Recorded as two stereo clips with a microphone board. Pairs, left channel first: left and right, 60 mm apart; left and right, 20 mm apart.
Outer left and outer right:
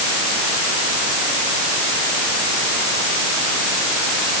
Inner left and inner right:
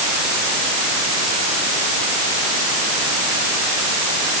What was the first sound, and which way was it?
Only background noise.